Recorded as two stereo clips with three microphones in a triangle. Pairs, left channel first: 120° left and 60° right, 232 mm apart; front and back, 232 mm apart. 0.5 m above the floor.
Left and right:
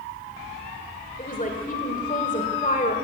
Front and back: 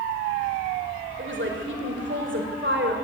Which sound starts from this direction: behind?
A woman speaking, at 1.2 s.